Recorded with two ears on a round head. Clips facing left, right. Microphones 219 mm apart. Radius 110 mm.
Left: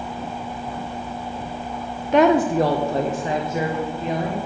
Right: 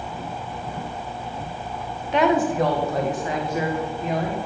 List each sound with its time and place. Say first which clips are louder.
2.1 s a woman speaking: left 4 dB; 40° left (ahead or behind), 0.5 m; by 4.4 s 20° left (ahead or behind), 1.8 m